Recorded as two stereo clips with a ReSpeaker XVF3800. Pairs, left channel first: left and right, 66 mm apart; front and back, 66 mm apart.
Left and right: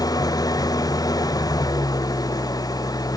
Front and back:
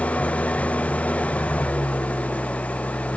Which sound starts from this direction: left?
An engine running, at 0.0 s.